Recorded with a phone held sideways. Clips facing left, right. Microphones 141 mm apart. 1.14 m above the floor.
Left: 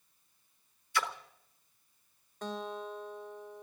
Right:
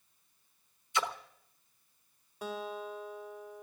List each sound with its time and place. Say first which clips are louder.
0.9 s a splash: right 1 dB; 20° right (ahead or behind), 1.0 m
2.4 s a guitar: even; 10° right (ahead or behind), 1.4 m